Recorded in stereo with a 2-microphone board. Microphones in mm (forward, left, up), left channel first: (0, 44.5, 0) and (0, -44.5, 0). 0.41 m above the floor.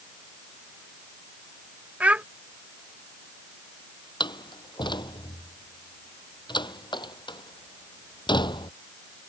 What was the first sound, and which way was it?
A child speaking, 15° right (ahead or behind).